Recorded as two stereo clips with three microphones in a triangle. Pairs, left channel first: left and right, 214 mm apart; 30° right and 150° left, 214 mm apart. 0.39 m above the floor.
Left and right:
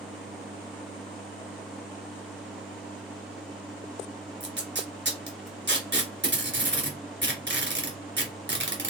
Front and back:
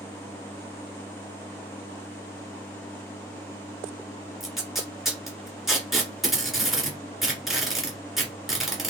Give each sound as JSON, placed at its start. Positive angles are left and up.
{"t": 4.4, "sound": "tape being pulled", "azimuth_deg": -120, "distance_m": 1.7}